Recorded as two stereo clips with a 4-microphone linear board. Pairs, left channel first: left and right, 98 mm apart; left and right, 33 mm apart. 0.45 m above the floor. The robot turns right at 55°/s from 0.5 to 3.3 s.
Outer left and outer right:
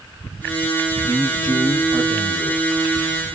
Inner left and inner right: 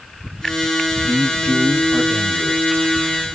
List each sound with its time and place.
1.0 s a man speaking: 160° left, 7.5 m; by 2.8 s 105° right, 7.5 m